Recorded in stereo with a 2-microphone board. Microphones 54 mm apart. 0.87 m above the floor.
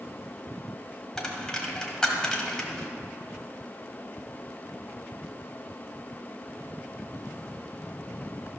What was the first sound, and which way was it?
A dropped coin, 10° left (ahead or behind).